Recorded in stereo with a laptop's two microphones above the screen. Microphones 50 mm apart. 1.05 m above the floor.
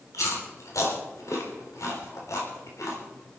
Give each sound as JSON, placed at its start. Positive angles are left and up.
{"t": 0.1, "sound": "chewing", "side_deg": 80, "distance_m": 3.5}